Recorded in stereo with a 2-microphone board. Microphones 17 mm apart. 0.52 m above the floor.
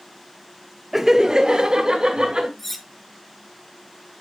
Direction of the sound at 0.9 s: 20° right (ahead or behind).